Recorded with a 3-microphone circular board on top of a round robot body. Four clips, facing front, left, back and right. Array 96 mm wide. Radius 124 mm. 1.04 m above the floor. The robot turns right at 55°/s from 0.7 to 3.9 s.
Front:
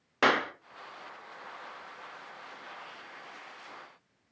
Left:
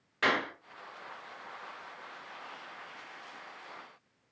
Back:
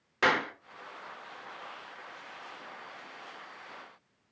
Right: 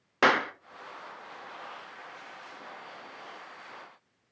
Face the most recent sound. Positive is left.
turn(degrees=110)